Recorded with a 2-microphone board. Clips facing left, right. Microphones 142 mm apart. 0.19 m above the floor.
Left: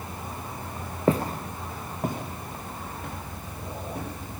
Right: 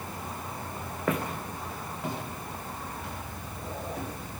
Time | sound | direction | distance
1.1 | footsteps | 30° left (ahead or behind) | 0.8 m